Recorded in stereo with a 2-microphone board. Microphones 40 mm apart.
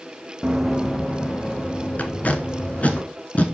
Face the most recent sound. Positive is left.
turn(degrees=35)  # may be behind; listen again after turning